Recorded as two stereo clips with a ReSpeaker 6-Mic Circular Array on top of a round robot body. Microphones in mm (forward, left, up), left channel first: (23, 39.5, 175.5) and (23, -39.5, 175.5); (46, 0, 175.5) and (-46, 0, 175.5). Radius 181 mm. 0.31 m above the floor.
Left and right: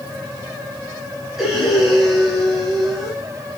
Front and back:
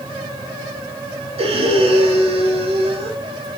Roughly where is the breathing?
Behind.